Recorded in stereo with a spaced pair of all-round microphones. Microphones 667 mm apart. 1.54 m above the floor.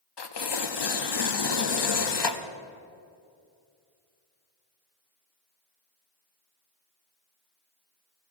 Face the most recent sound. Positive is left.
turn(degrees=40)  # may be behind; listen again after turning